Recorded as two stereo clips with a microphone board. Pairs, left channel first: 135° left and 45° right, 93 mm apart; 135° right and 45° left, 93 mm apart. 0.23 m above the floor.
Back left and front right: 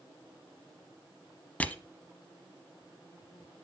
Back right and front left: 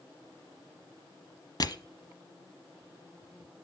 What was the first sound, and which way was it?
Crushing, 155° right.